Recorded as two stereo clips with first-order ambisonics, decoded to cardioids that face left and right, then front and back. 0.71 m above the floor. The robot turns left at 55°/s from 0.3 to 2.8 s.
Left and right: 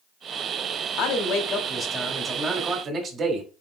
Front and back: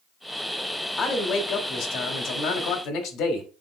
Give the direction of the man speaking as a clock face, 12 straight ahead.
10 o'clock.